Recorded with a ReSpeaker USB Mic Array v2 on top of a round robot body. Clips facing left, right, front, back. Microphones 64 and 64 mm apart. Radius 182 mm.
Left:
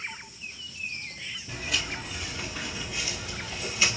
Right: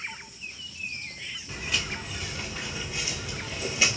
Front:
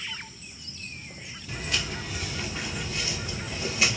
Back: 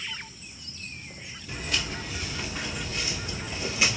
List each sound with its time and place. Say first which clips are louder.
1.5 s footsteps: even, even; 95° left, 1.4 m; by 4.0 s 105° right, 1.1 m